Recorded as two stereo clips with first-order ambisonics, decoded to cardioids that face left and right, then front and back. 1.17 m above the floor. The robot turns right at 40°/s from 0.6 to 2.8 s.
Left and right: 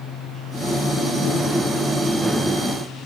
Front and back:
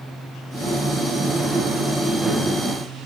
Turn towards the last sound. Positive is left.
No sound to turn to.